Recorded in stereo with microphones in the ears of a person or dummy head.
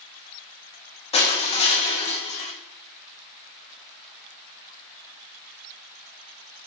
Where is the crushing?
30° left (ahead or behind), 1.3 m.